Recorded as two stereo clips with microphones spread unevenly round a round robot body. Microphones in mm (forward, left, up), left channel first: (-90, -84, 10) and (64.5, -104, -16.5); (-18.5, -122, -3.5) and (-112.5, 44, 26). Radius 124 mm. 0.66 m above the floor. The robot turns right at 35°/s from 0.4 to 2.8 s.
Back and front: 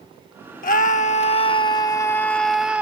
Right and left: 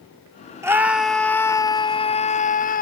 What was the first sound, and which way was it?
A scream, 160° right.